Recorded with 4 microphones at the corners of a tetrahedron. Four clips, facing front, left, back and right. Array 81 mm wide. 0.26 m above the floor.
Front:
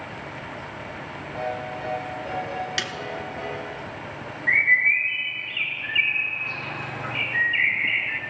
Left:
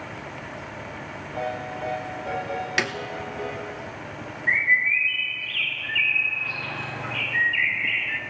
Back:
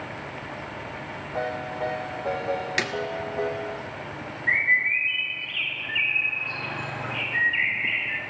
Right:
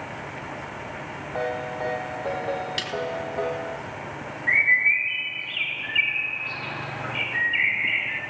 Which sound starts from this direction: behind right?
A ringtone, at 1.4 s.